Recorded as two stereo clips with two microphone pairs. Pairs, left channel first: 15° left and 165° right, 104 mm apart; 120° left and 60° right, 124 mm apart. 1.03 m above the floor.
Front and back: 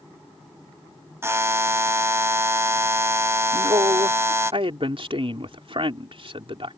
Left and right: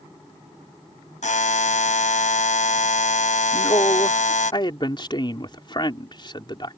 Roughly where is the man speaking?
Behind.